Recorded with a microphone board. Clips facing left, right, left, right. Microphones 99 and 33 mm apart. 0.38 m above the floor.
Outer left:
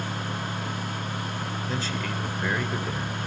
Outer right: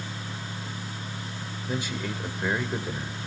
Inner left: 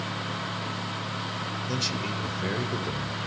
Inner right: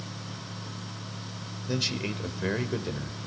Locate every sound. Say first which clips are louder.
1.7 s a man speaking: outer right 2 dB, inner right 3 dB; 15° right (ahead or behind), 1.3 m